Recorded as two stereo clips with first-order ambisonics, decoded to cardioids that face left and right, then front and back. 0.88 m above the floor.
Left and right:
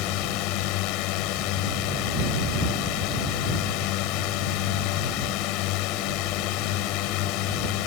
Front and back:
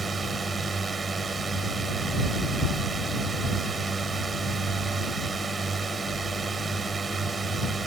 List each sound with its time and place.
0.0 s a drone: 105° left